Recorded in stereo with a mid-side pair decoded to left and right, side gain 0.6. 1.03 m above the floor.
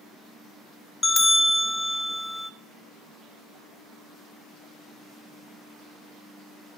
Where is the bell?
15° left, 1.1 m.